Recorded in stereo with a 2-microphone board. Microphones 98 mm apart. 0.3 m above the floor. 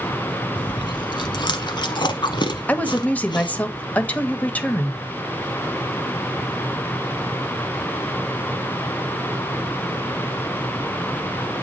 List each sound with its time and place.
0.6 s chewing: 55° left (ahead or behind), 0.9 m
2.7 s a woman speaking: 15° left (ahead or behind), 1.0 m